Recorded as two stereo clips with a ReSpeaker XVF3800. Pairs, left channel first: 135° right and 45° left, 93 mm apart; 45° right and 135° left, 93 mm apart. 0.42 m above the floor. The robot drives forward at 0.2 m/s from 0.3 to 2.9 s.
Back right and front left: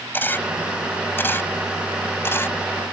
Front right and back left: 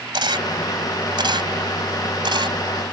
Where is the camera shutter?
160° left; by 2.6 s 165° left.